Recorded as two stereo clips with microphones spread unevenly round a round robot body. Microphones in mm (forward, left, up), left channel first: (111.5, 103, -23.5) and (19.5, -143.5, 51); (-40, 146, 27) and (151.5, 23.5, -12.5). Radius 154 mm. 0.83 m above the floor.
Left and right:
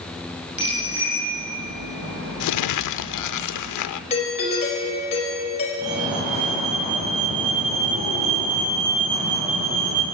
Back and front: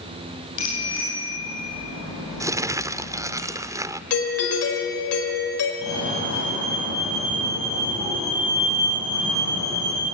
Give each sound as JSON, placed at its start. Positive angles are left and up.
{"t": 0.6, "sound": "a bicycle bell", "azimuth_deg": 165, "distance_m": 8.5}
{"t": 2.4, "sound": "crumpling", "azimuth_deg": 50, "distance_m": 0.8}
{"t": 4.1, "sound": "a doorbell", "azimuth_deg": 135, "distance_m": 4.5}
{"t": 5.8, "sound": "a fire alarm", "azimuth_deg": 170, "distance_m": 8.0}